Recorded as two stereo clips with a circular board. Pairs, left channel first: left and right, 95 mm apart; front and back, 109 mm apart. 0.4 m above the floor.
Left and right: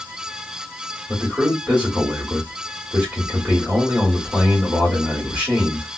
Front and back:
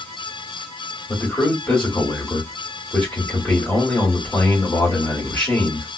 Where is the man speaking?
70° right, 1.5 m.